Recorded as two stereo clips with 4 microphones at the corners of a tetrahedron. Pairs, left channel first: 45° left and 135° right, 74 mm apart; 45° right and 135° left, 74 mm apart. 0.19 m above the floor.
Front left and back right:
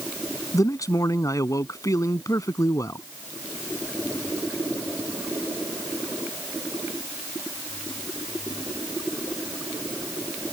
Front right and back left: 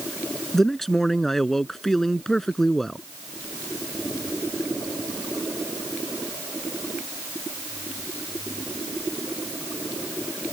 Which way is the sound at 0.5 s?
40° left.